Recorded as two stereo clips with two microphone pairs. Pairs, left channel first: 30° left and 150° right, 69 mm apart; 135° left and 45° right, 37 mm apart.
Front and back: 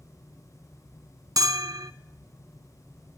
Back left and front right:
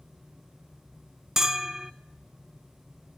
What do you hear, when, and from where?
1.4 s a bell: 125° right, 0.6 m